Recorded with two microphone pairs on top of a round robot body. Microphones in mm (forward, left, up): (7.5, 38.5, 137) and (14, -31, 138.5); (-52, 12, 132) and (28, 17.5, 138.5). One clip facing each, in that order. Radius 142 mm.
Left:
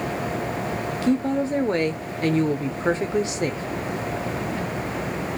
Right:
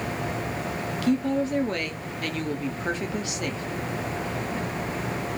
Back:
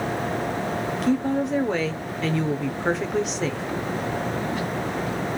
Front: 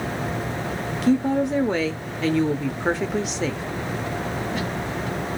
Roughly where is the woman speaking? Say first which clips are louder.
Left 2 dB, front 4 dB; left.